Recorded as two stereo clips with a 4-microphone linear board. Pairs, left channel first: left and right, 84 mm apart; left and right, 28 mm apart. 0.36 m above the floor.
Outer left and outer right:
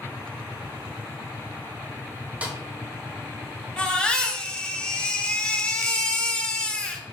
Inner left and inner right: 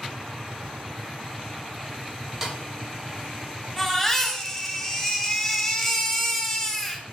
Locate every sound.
2.4 s a snare drum: 15° right (ahead or behind), 1.9 m
3.8 s a baby crying: 10° left (ahead or behind), 1.8 m